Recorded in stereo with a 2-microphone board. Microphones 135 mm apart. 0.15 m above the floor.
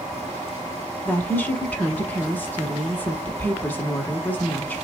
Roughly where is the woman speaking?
Centre.